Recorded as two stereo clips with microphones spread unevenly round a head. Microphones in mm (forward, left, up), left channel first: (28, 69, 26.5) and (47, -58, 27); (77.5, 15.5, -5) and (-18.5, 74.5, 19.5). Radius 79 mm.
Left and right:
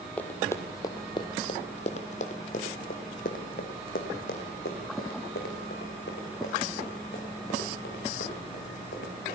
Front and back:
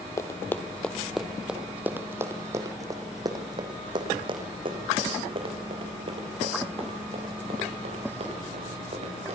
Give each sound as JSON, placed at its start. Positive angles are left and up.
{"t": 0.2, "sound": "running footsteps", "azimuth_deg": 30, "distance_m": 1.7}